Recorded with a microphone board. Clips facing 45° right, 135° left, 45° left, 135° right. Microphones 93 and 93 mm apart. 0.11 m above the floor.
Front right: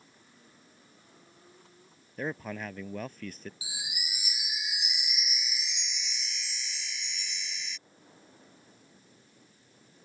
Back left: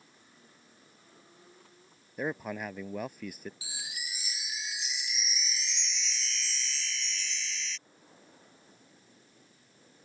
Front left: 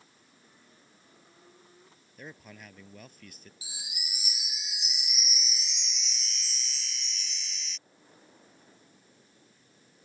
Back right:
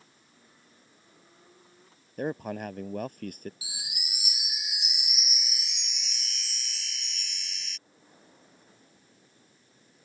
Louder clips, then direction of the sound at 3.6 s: Front right 1 dB, back right 2 dB; 115° right.